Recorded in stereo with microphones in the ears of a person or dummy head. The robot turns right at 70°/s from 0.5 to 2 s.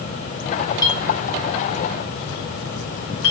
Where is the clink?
25° left (ahead or behind), 2.5 m; by 3.3 s 70° left (ahead or behind), 2.5 m.